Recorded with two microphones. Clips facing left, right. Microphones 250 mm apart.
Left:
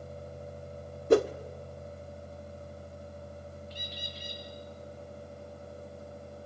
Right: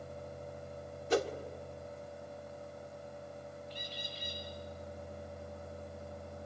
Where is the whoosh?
60° left (ahead or behind), 1.1 m.